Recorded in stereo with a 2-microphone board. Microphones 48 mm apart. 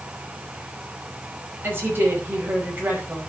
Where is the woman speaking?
45° right (ahead or behind), 5 m.